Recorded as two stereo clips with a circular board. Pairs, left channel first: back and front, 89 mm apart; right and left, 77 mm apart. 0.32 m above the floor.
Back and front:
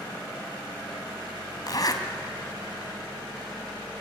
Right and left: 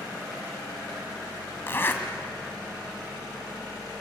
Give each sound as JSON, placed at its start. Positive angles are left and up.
{"t": 1.7, "sound": "a zipper", "azimuth_deg": -145, "distance_m": 2.0}